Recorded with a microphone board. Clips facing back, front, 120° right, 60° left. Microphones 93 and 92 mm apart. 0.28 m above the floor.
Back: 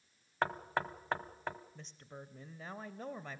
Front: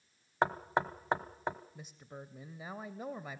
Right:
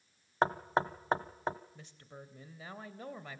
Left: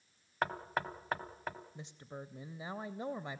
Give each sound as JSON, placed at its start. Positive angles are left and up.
{"t": 0.4, "sound": "knocking", "azimuth_deg": -65, "distance_m": 0.9}
{"t": 1.8, "sound": "a woman speaking", "azimuth_deg": 60, "distance_m": 0.9}